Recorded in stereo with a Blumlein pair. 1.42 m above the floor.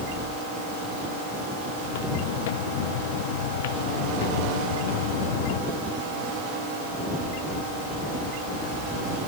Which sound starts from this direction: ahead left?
Footsteps, at 1.8 s.